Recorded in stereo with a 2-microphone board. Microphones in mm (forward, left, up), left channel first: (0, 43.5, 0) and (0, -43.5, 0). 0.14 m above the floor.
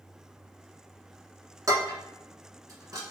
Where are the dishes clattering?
40° right (ahead or behind), 1.0 m.